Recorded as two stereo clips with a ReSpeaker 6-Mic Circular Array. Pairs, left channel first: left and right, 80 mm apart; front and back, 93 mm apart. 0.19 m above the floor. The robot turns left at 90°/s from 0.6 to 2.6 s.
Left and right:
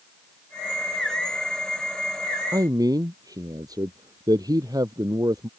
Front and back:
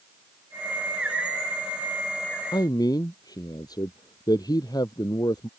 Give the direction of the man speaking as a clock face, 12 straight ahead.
1 o'clock.